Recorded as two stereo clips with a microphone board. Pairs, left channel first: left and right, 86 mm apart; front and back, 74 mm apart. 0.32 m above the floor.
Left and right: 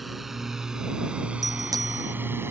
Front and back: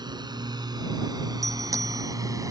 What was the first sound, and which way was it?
A drone, straight behind.